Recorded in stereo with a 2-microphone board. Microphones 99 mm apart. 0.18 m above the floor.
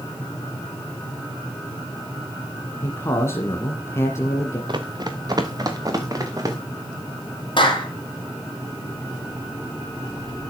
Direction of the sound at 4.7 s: 50° right (ahead or behind).